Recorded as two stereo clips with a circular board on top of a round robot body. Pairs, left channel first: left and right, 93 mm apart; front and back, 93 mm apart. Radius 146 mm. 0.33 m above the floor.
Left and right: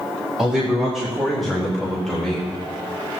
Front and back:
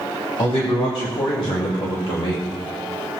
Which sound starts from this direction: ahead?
A man speaking, at 0.4 s.